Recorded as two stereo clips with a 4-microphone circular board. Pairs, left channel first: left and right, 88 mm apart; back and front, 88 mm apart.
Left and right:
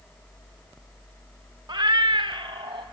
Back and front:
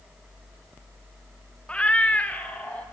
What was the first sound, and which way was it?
A cat meowing, 105° right.